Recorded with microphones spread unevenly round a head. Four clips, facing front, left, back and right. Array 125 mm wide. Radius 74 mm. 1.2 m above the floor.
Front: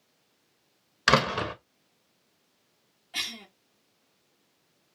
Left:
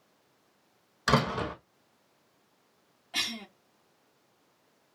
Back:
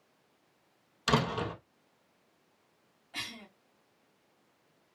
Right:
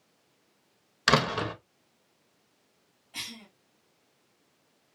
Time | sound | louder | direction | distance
1.1 | a door slam | right 1 dB, front 6 dB | 35° right | 1.1 m
3.1 | a cough | left 7 dB, front 4 dB | 60° left | 1.4 m